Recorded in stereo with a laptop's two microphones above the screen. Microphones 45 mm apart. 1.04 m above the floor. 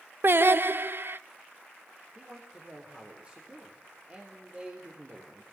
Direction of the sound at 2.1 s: 30° right (ahead or behind).